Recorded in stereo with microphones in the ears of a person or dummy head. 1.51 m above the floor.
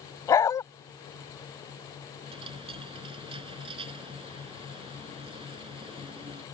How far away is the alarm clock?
No alarm clock in this recording.